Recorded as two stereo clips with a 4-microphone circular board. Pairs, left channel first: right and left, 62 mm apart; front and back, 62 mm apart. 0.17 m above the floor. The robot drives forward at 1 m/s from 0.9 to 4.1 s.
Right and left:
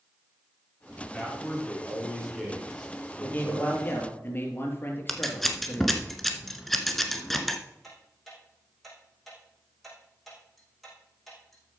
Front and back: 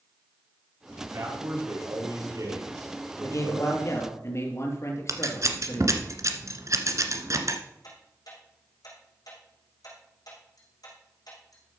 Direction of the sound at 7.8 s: 5° right.